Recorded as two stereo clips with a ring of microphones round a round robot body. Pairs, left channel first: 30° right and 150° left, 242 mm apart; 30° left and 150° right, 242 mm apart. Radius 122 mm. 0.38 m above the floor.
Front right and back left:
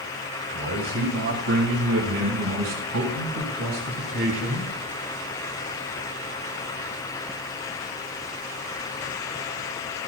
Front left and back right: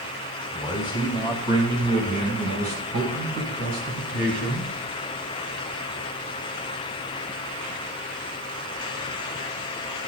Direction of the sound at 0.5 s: 125° left.